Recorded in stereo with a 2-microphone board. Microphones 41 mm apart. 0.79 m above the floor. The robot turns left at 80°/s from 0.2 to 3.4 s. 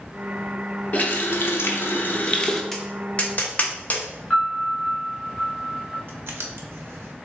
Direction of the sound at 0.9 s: 145° left.